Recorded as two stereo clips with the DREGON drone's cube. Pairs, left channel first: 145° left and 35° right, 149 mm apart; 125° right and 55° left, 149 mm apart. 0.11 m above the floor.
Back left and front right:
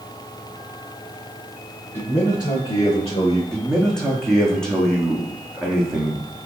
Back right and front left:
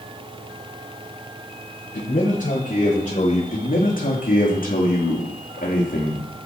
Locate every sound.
1.9 s a man speaking: 150° right, 4.5 m; by 3.4 s 165° right, 5.5 m
3.5 s a man speaking: 130° right, 3.5 m